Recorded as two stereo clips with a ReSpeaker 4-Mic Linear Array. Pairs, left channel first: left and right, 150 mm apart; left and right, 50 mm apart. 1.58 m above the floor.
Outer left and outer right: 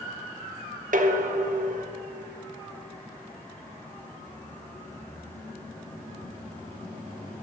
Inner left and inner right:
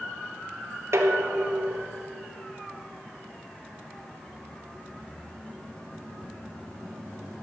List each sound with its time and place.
0.9 s dishes clattering: 60° right (ahead or behind), 1.4 m